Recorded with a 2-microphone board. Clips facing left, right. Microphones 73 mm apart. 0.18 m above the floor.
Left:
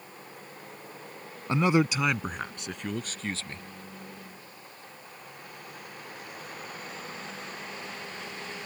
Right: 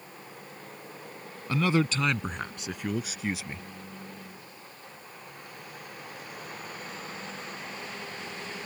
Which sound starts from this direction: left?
A man speaking, at 1.5 s.